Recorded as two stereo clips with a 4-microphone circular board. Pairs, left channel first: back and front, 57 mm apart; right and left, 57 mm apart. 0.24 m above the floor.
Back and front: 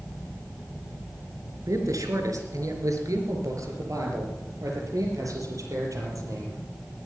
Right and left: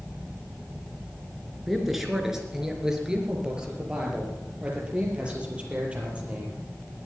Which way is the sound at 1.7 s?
5° left.